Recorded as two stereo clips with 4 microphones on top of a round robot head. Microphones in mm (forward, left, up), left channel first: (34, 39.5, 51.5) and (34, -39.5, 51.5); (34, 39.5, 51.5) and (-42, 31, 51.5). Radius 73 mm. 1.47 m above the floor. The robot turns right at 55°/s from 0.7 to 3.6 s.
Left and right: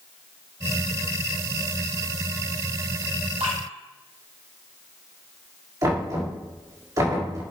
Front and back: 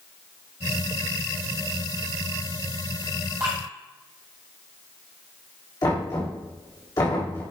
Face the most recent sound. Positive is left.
turn(degrees=-45)